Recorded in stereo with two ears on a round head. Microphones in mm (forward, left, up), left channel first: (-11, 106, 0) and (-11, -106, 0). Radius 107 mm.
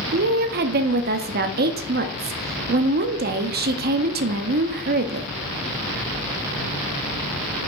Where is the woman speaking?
40° right (ahead or behind), 0.7 m.